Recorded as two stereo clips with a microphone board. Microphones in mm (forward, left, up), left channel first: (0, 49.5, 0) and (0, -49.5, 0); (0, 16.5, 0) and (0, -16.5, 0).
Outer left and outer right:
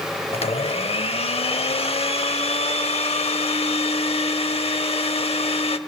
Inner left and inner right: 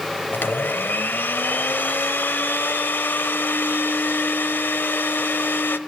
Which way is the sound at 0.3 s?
85° left.